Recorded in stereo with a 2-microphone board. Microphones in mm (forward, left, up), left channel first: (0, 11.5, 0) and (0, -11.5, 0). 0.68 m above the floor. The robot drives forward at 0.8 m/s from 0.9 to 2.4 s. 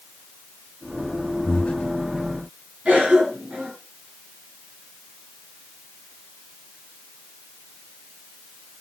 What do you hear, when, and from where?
1.4 s breathing: 70° left (ahead or behind), 0.8 m; by 1.9 s 75° left (ahead or behind), 0.8 m
2.9 s a cough: 85° right, 7.5 m